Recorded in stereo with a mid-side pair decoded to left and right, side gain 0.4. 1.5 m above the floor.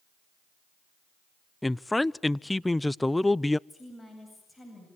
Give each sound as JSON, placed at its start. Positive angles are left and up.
{"t": 1.6, "sound": "a man speaking", "azimuth_deg": 15, "distance_m": 0.5}
{"t": 3.7, "sound": "a woman speaking", "azimuth_deg": 15, "distance_m": 8.5}